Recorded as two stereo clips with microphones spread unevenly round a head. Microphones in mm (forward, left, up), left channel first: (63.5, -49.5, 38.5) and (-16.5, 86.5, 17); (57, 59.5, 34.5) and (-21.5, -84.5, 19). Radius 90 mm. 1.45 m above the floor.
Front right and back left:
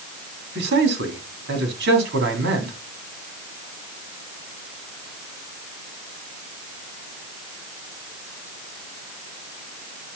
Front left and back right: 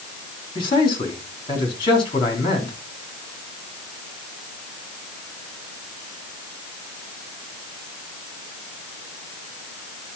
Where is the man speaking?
125° left, 3.5 m.